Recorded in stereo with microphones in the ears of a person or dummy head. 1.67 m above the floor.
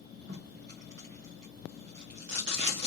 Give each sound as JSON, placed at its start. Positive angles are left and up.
{"t": 0.3, "sound": "tape being pulled", "side_deg": -60, "distance_m": 1.1}